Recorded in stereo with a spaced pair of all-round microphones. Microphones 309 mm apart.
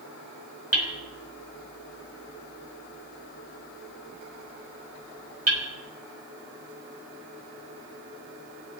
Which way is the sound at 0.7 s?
50° right (ahead or behind).